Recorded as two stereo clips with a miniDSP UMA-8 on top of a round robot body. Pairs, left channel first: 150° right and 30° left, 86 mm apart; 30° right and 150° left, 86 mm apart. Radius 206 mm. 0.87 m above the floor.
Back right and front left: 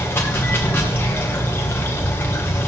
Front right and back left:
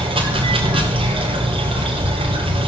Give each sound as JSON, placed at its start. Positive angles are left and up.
{"t": 0.0, "sound": "running water", "azimuth_deg": 145, "distance_m": 2.5}